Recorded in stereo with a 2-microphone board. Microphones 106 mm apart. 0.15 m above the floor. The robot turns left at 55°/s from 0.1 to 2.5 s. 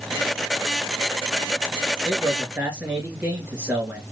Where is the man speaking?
Centre (ahead or behind), 2 m; by 4.0 s 20° right (ahead or behind), 2 m.